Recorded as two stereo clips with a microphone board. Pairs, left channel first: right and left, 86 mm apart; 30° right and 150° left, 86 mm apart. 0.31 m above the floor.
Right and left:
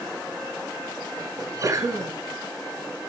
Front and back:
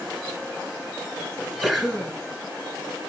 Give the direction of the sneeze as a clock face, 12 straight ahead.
9 o'clock.